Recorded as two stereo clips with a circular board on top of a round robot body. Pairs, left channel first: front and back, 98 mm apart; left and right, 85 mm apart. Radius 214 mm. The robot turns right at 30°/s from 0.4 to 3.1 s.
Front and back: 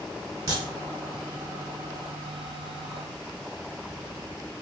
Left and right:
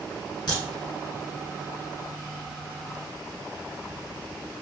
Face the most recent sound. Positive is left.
turn(degrees=-155)